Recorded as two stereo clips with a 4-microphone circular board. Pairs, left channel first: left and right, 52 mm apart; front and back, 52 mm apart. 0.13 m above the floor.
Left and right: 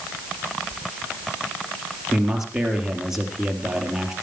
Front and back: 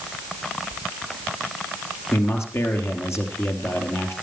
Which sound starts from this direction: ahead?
A man speaking, at 2.1 s.